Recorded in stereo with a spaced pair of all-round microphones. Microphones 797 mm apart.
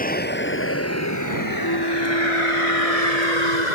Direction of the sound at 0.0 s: 10° left (ahead or behind).